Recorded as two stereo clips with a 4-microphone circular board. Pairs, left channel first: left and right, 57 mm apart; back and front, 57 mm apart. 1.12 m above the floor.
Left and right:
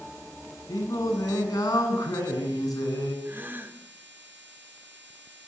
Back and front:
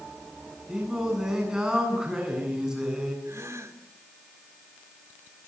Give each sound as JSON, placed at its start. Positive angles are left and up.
{"t": 0.7, "sound": "singing", "azimuth_deg": 80, "distance_m": 9.5}
{"t": 3.2, "sound": "a gasp", "azimuth_deg": -30, "distance_m": 4.0}